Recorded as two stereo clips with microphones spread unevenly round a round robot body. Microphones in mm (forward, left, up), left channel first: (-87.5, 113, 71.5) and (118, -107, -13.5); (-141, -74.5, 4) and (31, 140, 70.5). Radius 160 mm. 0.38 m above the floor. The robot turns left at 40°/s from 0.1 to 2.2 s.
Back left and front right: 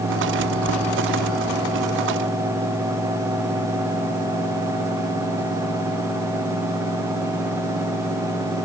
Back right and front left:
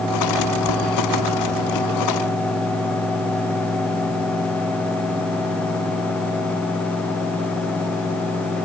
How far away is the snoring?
I don't hear snoring.